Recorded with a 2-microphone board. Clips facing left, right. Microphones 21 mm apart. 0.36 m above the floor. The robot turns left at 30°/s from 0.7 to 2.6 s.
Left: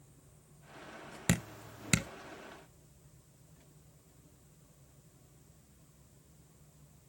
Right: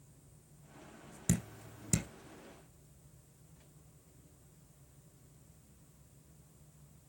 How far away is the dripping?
About 0.5 m.